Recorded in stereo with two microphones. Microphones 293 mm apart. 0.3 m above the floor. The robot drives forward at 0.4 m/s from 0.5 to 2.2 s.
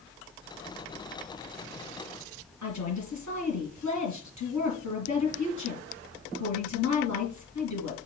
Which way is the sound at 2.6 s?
70° left (ahead or behind).